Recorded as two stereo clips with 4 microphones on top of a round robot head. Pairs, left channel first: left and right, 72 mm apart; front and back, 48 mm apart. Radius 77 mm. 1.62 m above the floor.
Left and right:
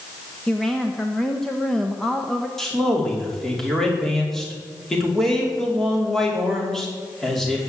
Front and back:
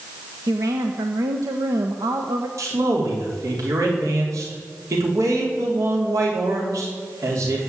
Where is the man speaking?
175° left, 4.5 m.